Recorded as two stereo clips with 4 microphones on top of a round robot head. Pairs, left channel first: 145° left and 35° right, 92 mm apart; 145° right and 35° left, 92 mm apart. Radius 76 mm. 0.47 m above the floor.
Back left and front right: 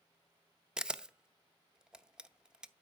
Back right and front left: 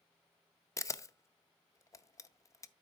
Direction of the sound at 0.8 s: 110° right.